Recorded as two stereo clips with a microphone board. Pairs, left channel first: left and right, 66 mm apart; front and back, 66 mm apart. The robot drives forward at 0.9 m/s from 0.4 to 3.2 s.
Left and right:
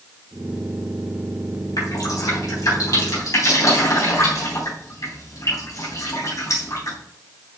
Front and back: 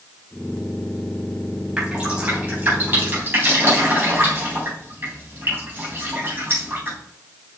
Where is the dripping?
100° left, 3 m; by 7.0 s 125° left, 3.5 m.